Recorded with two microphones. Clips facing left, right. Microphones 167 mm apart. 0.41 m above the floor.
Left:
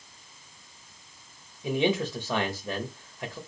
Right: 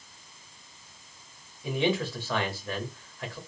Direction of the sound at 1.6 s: 20° left (ahead or behind).